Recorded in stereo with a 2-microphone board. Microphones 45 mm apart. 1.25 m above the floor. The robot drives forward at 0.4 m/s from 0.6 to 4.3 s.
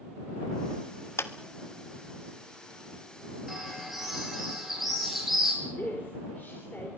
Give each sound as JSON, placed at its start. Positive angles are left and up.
{"t": 1.2, "sound": "a clap", "side_deg": 70, "distance_m": 1.2}
{"t": 3.5, "sound": "a bird", "side_deg": -5, "distance_m": 8.0}
{"t": 5.6, "sound": "a woman speaking", "side_deg": 50, "distance_m": 4.0}